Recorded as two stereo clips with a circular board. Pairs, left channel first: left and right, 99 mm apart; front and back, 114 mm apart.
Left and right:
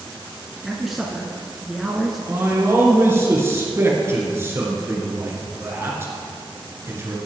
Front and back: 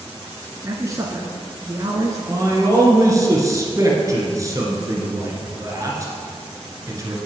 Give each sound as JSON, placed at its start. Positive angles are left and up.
{"t": 0.6, "sound": "a man speaking", "azimuth_deg": -170, "distance_m": 1.2}
{"t": 2.3, "sound": "a man speaking", "azimuth_deg": -140, "distance_m": 2.0}